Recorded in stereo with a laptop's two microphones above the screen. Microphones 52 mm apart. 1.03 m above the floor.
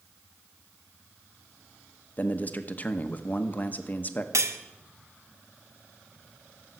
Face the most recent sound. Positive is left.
turn(degrees=-80)